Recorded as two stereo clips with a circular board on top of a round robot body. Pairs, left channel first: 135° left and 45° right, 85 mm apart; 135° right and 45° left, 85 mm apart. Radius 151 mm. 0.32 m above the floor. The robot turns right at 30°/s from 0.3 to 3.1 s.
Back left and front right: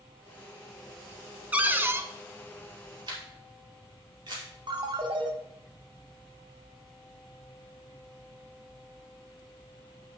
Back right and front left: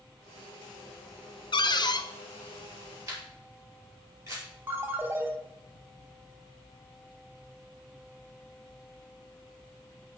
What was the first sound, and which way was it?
A cupboard door, 120° right.